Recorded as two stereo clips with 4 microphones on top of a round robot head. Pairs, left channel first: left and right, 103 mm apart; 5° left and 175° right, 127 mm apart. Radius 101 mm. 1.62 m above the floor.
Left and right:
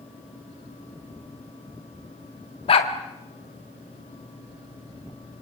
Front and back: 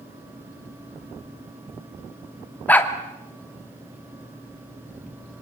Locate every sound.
2.7 s a dog barking: 80° left, 1.6 m